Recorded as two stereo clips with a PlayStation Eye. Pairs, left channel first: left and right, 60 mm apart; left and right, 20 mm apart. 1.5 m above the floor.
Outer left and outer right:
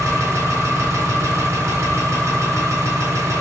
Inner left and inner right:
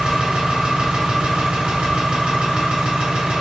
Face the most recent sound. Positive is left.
turn(degrees=-55)  # may be behind; listen again after turning